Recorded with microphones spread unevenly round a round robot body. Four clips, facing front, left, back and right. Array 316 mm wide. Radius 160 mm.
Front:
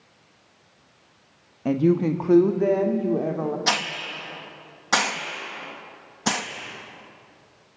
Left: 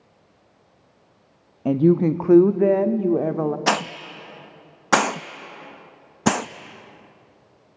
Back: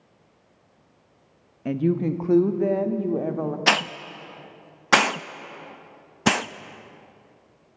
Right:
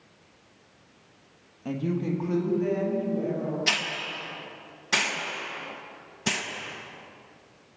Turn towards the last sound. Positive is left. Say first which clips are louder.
# left 9 dB, back 3 dB
turn(degrees=95)